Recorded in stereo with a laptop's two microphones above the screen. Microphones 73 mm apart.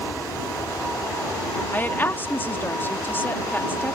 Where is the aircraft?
60° left (ahead or behind).